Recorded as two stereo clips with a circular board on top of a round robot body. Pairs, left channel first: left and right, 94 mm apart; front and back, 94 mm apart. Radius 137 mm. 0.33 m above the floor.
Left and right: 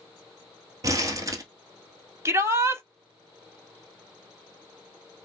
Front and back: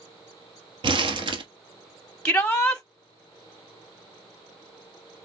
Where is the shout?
75° right, 1.6 m.